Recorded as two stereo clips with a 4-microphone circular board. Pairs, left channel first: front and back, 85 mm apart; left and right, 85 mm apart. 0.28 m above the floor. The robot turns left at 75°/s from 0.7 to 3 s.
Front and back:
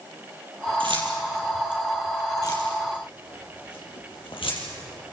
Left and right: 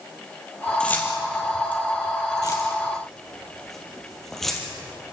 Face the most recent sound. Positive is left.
turn(degrees=5)